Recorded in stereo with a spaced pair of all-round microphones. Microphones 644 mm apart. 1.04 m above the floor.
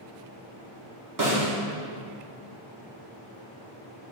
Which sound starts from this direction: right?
A snare drum, at 1.2 s.